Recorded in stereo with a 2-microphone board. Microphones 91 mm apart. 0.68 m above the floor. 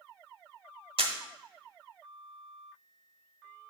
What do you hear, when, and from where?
1.0 s a camera shutter: 70° right (ahead or behind), 1.1 m